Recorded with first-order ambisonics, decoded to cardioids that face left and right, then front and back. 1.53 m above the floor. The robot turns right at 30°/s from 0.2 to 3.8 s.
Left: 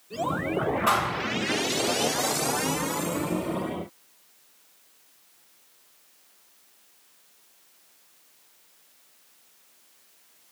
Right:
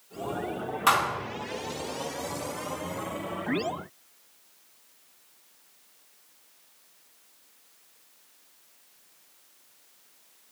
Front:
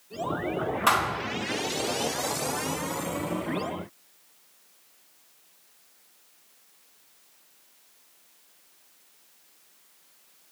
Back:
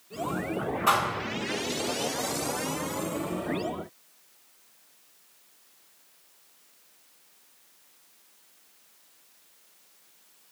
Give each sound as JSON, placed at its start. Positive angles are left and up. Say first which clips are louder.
{"t": 0.9, "sound": "a thud", "louder": "right 3 dB, front 1 dB", "azimuth_deg": -45, "distance_m": 1.3}